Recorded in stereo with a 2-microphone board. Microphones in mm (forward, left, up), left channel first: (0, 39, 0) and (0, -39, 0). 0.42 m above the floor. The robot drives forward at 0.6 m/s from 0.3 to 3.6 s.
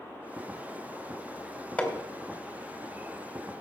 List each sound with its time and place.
1.8 s hammering: 20° left (ahead or behind), 2.5 m